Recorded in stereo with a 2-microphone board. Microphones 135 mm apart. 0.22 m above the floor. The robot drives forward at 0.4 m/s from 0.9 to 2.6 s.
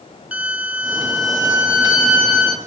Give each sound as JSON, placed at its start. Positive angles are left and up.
{"t": 0.3, "sound": "a violin", "side_deg": -10, "distance_m": 0.8}